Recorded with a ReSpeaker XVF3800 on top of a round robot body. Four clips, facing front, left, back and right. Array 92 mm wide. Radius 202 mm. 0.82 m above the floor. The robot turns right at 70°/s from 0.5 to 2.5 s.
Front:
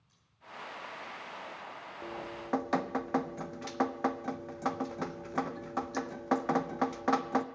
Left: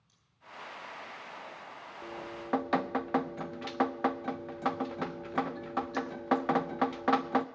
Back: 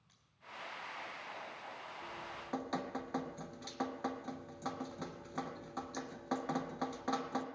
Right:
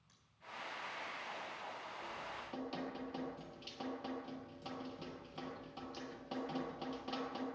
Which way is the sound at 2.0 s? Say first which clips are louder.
Left 5 dB, front 9 dB; 30° left.